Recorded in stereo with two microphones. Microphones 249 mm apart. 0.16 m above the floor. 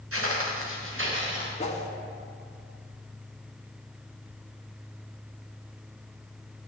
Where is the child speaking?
No child speaking in this recording.